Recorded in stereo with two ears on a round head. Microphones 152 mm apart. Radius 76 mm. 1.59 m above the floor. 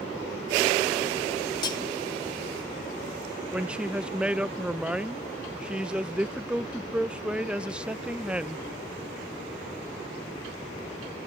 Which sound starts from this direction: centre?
A woman speaking, at 3.5 s.